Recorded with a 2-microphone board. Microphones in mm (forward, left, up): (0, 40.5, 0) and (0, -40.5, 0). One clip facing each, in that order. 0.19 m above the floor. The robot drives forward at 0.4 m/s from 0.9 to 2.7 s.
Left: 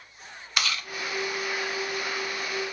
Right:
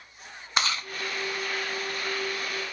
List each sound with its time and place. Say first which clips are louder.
0.6 s chewing: right 2 dB; 30° right (ahead or behind), 0.6 m